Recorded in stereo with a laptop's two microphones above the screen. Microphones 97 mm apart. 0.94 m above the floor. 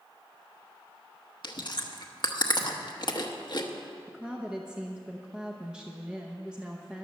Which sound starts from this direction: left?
Chewing, at 1.4 s.